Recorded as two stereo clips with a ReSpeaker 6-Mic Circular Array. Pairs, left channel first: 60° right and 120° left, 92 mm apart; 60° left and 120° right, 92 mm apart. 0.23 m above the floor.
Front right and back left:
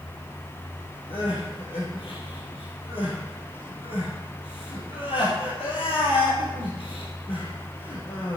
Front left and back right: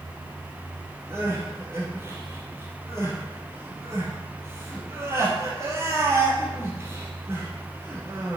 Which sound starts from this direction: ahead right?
Crying, at 1.1 s.